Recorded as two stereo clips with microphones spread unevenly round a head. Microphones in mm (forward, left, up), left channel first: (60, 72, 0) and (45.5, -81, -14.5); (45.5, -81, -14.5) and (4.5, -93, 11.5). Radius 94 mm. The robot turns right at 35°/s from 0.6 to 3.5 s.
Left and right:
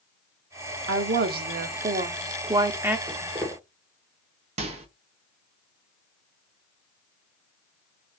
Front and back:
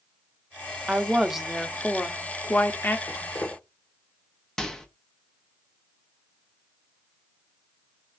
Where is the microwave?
110° right, 0.8 m.